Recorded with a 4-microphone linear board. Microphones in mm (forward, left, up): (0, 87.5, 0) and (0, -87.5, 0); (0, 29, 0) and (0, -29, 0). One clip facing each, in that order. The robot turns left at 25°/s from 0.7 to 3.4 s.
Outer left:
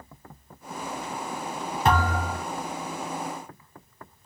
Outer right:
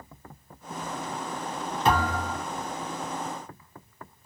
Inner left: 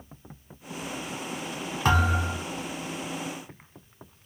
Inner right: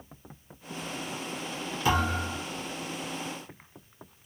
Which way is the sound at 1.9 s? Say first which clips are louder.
Outer left 1 dB, inner left 3 dB; 50° left (ahead or behind).